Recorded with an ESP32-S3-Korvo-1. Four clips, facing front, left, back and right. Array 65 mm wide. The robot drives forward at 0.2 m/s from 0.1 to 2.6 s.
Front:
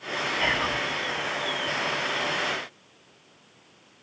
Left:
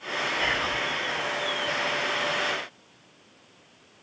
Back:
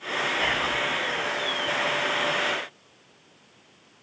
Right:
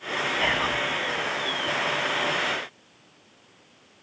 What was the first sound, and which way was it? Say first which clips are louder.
Whispering: right 3 dB, front 3 dB; 80° right.